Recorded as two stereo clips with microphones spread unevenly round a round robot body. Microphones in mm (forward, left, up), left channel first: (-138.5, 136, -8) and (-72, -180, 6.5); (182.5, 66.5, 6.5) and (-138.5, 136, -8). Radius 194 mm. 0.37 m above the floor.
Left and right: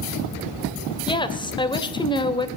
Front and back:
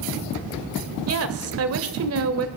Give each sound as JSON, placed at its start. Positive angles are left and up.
{"t": 1.1, "sound": "a woman speaking", "azimuth_deg": 170, "distance_m": 1.4}